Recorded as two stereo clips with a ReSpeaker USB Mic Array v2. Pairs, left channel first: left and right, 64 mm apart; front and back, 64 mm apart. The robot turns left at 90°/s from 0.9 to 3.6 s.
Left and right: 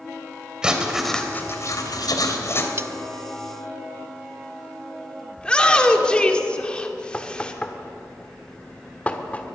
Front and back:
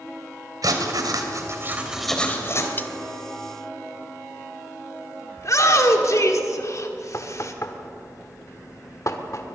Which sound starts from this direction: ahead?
A shout, at 5.4 s.